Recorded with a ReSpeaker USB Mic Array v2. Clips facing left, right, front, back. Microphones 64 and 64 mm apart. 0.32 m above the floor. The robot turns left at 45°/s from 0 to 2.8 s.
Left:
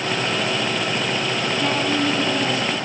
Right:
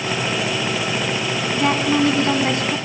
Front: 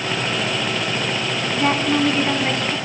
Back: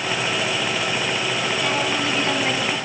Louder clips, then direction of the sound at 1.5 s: Right 5 dB, front 8 dB; 50° right.